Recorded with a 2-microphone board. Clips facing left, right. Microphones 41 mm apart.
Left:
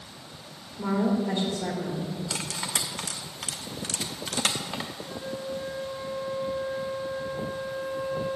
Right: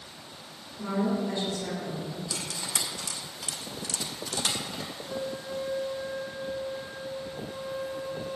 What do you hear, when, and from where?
0.8 s a woman speaking: 35° left (ahead or behind), 2 m
2.3 s cutlery clinking: 55° left (ahead or behind), 0.9 m
5.1 s a flute: centre (ahead or behind), 3.5 m